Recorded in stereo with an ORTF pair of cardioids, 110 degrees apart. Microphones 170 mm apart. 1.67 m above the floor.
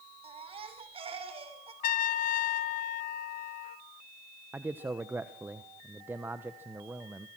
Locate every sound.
0.2 s a baby crying: 35° right, 3.5 m
1.8 s a trumpet: 55° left, 1.3 m
4.5 s a man speaking: 10° right, 1.1 m